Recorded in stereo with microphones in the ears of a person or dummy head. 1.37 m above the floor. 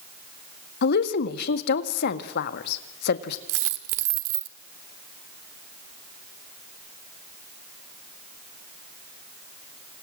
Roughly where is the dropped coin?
Right.